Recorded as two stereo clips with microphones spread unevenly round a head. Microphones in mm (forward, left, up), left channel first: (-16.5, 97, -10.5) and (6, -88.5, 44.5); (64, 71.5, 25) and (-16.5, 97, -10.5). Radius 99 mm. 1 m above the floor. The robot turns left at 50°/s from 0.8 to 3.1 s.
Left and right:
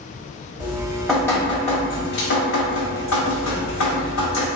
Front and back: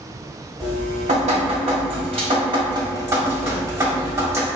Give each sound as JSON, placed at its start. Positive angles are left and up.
{"t": 0.6, "sound": "dripping", "azimuth_deg": -150, "distance_m": 1.9}